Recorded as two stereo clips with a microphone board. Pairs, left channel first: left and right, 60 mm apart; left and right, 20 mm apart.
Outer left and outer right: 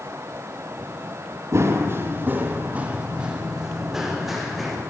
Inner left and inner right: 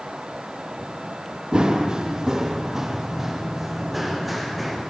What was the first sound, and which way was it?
Running footsteps, 50° right (ahead or behind).